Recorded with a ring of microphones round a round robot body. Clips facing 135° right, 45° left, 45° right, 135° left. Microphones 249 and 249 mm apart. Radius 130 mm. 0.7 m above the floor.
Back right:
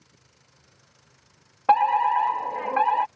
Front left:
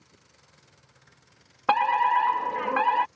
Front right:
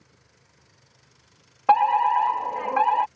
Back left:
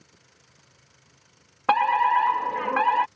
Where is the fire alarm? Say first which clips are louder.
Back right 3 dB, front right 3 dB; 95° left.